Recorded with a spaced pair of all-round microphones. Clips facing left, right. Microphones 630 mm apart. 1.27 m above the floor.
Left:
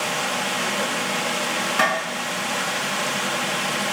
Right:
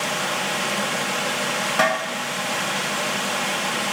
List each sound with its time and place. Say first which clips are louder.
1.8 s tapping: right 3 dB; 15° right (ahead or behind), 0.7 m